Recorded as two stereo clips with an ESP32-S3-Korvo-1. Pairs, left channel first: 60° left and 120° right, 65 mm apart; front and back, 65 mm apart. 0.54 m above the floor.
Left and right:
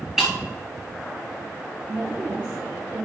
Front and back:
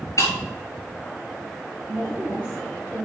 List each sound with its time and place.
0.2 s breaking glass: 35° right, 5 m
1.9 s a woman speaking: 60° right, 3.5 m